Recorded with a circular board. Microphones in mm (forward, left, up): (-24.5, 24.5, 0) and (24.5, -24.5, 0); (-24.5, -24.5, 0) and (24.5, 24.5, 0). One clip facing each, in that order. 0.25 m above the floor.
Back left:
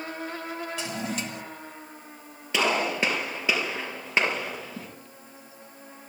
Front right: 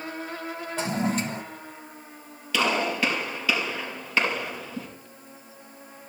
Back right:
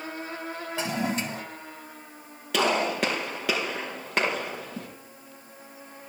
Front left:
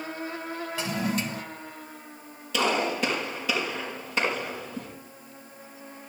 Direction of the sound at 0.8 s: 80° right.